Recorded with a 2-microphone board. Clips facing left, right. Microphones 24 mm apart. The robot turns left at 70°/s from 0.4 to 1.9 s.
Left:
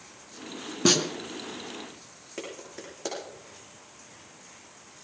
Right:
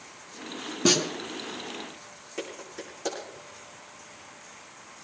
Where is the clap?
10° left (ahead or behind), 8 m.